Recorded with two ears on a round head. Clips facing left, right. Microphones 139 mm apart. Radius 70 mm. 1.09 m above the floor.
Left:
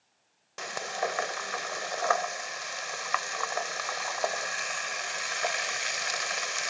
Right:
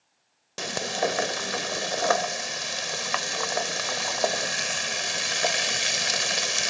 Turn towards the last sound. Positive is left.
turn(degrees=-40)  # may be behind; listen again after turning